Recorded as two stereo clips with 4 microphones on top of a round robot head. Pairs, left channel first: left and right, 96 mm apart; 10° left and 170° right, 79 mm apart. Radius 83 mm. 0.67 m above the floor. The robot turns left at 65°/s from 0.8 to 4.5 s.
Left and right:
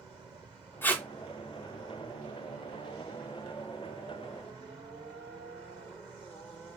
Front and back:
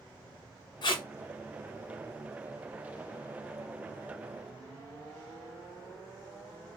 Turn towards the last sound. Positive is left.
turn(degrees=145)